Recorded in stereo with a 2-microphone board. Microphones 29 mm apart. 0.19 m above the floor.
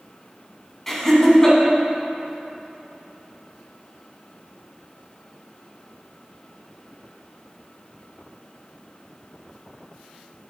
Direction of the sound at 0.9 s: 10° left (ahead or behind).